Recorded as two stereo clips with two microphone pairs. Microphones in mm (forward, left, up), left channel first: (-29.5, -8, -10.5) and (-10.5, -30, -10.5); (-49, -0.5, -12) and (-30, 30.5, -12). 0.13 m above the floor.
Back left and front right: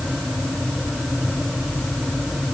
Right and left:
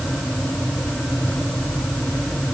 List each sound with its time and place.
Only background noise.